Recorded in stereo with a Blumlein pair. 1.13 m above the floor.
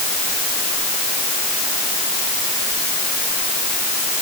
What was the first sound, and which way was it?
Only background noise.